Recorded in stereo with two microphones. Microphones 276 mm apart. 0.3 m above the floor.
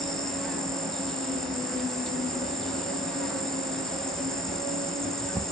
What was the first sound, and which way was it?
An insect, centre (ahead or behind).